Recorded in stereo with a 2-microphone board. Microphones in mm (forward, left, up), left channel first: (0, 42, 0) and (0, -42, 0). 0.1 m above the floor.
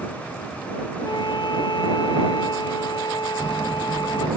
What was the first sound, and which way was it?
A flute, 60° left (ahead or behind).